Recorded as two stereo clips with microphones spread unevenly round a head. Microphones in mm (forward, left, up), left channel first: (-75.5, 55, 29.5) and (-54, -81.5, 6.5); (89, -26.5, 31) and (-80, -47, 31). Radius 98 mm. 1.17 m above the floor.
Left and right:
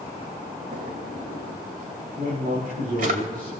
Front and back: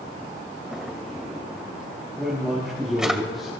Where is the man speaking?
85° right, 6.5 m.